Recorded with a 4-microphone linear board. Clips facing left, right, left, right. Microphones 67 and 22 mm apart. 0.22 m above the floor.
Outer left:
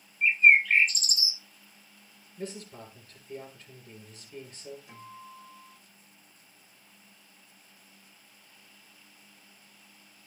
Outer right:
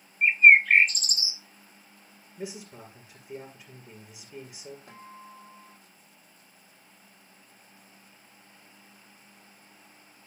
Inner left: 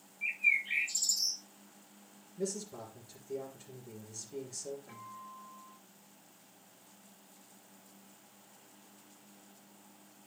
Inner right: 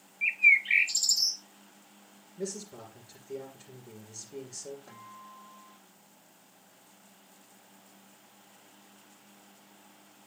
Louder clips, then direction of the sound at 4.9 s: Even, even; 60° right (ahead or behind).